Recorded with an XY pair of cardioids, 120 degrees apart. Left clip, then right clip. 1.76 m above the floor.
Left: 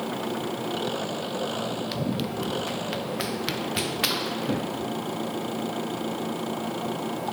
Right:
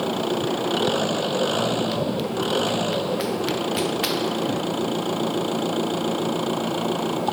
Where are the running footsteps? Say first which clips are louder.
Right 5 dB; 15° left.